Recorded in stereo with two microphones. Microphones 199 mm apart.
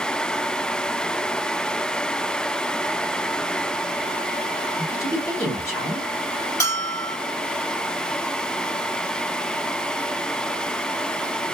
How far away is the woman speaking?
About 1.3 m.